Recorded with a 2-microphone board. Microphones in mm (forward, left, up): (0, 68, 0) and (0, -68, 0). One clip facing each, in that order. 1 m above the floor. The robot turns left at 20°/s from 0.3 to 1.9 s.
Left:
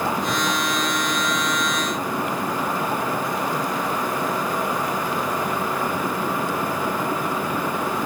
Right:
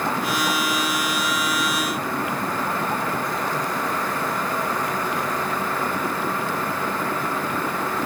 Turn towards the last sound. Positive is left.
No sound to turn to.